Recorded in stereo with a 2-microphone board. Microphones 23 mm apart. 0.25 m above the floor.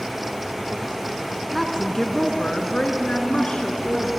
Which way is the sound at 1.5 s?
20° left (ahead or behind).